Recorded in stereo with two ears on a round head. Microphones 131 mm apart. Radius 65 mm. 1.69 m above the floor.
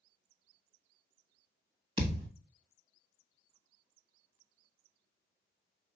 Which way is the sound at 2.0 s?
35° right (ahead or behind).